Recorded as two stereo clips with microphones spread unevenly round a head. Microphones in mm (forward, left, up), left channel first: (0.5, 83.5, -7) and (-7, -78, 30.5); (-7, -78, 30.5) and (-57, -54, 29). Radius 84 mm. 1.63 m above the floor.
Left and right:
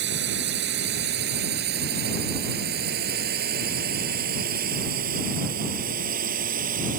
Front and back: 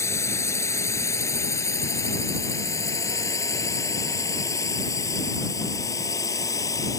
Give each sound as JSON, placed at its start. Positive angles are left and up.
{"t": 0.0, "sound": "a drone", "azimuth_deg": -65}